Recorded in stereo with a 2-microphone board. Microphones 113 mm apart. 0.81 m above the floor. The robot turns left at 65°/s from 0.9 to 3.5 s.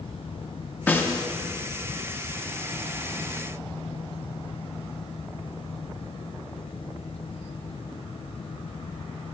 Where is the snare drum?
15° left (ahead or behind), 0.8 m; by 1.2 s 35° left (ahead or behind), 0.8 m.